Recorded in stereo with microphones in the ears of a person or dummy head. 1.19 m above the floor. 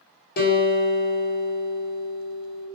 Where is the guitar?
60° left (ahead or behind), 1.1 m.